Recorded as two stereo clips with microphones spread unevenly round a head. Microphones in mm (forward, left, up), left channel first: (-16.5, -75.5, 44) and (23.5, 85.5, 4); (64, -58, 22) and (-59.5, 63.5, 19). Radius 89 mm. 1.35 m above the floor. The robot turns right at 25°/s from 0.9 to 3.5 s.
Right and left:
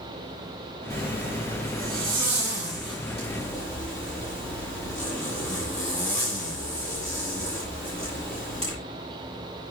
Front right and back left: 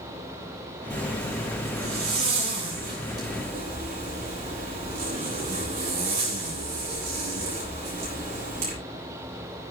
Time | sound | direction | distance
0.9 | a zipper | 110° left | 8 m